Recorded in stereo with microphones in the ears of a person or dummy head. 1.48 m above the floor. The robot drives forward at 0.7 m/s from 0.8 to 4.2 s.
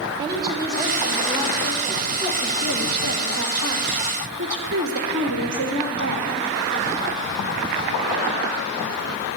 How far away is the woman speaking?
About 2.5 m.